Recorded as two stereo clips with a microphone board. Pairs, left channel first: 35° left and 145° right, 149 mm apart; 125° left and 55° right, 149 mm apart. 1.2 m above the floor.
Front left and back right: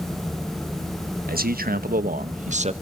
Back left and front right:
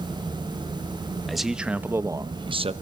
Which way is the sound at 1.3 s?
145° right.